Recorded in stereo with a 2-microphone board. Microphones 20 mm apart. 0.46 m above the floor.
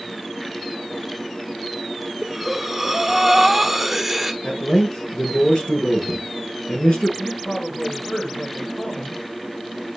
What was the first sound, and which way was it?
Breathing, 15° right (ahead or behind).